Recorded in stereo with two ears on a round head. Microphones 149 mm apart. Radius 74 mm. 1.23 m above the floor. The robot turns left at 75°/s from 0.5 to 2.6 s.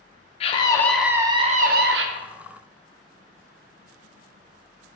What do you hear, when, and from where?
0.4 s a scream: 35° left, 0.5 m; by 2.1 s 80° right, 0.5 m